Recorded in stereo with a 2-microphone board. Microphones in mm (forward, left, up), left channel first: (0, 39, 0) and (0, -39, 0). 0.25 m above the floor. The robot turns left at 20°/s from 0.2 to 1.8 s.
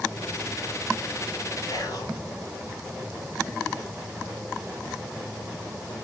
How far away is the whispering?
About 4.5 m.